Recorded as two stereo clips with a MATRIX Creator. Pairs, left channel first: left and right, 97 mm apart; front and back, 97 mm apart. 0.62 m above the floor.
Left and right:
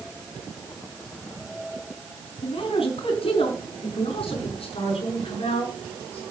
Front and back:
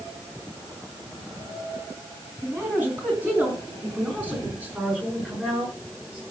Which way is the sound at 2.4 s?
110° left.